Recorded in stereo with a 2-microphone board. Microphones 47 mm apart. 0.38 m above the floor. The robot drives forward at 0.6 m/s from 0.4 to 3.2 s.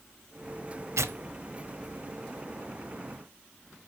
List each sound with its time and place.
1.0 s tearing paper: 75° right (ahead or behind), 0.5 m; by 2.8 s 25° right (ahead or behind), 1.2 m